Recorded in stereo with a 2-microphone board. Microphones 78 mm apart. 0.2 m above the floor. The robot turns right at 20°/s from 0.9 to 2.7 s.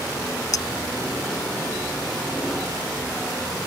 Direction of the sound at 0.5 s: 55° left (ahead or behind).